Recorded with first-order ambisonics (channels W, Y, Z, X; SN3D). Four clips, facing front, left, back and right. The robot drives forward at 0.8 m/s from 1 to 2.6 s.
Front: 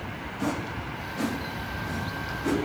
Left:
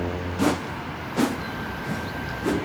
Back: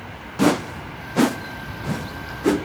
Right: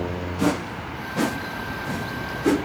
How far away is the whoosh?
About 0.5 m.